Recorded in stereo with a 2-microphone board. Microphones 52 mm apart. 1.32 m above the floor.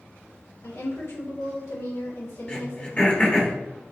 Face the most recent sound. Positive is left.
turn(degrees=25)  # may be behind; listen again after turning